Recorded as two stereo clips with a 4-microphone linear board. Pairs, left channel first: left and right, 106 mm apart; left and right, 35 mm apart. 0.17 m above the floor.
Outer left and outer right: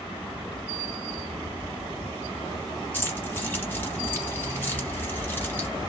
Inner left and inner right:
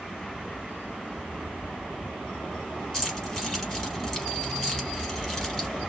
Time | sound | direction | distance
2.9 | keys jangling | 20° left (ahead or behind) | 1.4 m